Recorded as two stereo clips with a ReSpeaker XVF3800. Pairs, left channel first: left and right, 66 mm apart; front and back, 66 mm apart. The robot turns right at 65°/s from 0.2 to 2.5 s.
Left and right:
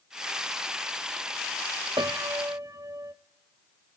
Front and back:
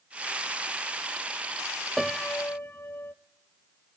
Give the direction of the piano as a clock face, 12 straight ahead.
3 o'clock.